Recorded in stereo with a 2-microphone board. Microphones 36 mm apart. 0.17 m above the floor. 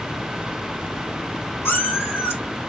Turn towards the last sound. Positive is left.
turn(degrees=80)